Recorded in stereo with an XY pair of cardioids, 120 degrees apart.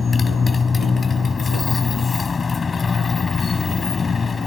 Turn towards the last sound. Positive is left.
turn(degrees=30)